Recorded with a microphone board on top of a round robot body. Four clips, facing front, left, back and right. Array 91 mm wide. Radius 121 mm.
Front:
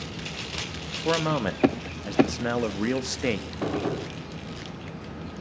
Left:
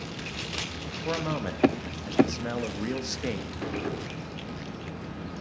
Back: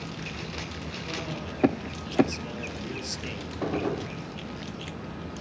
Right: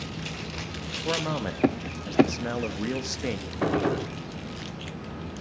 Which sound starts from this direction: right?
A gunshot, at 3.6 s.